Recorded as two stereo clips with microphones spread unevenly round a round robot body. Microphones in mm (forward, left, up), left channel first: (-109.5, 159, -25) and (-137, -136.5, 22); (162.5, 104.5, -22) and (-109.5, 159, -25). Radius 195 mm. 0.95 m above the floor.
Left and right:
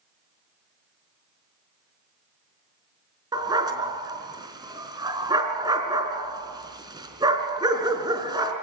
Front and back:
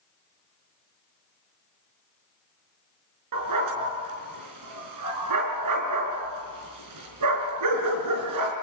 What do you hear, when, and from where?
3.3 s a dog barking: 170° right, 4.5 m